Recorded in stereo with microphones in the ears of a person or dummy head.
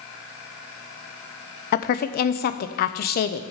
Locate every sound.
1.7 s a woman speaking: 40° left (ahead or behind), 0.7 m